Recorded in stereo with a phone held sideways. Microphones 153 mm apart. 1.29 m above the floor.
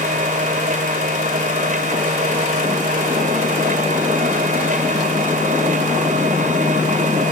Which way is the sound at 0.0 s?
55° right (ahead or behind).